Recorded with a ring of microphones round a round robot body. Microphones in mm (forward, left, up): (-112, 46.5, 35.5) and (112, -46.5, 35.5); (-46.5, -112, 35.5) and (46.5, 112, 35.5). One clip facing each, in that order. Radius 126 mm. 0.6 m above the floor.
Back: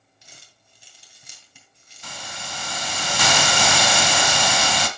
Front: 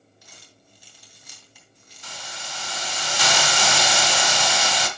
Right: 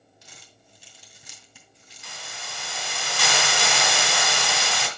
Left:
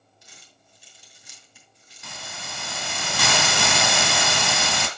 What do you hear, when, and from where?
0.2 s crumpling: 135° right, 2.5 m
2.0 s a hiss: 115° left, 1.5 m